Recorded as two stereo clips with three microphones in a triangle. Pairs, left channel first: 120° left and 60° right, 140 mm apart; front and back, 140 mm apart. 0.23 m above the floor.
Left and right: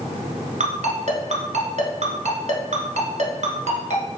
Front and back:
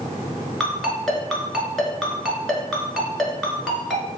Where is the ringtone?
85° right, 1.4 m.